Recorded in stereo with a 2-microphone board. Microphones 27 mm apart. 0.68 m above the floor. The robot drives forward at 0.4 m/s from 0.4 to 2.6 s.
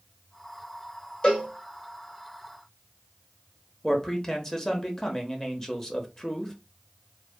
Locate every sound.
1.2 s a cowbell: 35° left (ahead or behind), 1.2 m; by 1.5 s 40° left (ahead or behind), 1.1 m
3.8 s a man speaking: 15° left (ahead or behind), 0.7 m